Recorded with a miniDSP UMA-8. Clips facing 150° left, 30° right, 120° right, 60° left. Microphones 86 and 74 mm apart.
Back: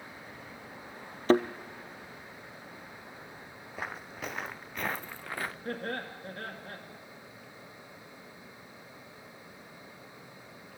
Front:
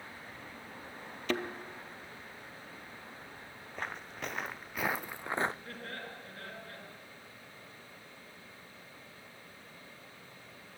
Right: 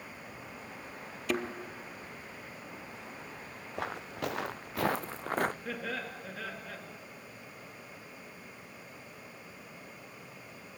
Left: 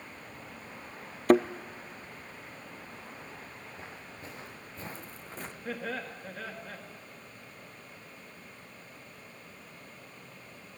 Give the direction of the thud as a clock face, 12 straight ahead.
9 o'clock.